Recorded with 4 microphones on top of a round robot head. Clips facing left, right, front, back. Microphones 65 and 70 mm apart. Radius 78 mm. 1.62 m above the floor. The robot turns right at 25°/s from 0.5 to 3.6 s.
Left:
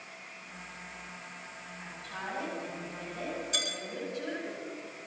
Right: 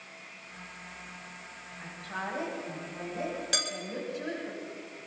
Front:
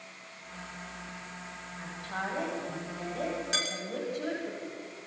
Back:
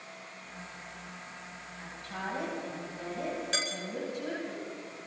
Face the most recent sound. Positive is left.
turn(degrees=-85)